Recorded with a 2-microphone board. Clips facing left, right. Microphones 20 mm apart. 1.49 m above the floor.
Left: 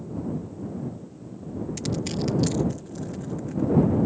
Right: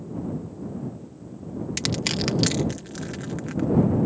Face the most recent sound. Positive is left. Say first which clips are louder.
# right 4 dB
turn(degrees=-55)  # may be behind; listen again after turning